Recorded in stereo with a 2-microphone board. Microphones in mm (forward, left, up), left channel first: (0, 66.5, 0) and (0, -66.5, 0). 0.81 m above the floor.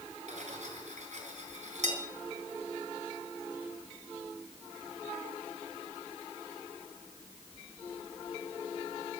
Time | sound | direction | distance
0.3 | cutlery clinking | 60° right (ahead or behind) | 4.5 m